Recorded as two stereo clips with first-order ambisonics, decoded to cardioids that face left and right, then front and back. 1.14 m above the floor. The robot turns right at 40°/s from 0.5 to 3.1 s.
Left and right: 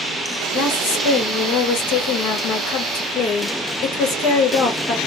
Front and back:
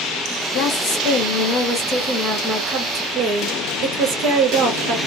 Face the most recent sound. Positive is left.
turn(degrees=140)